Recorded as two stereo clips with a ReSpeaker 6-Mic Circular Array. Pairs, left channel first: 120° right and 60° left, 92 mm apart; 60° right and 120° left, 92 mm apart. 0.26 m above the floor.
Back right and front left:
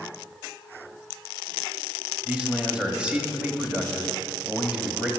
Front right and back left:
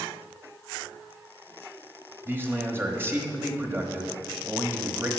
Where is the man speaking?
125° left, 1.1 m.